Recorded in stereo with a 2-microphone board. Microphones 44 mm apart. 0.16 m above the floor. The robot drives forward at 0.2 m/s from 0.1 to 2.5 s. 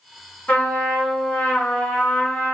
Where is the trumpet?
35° left (ahead or behind), 2.0 m; by 2.6 s 30° left (ahead or behind), 2 m.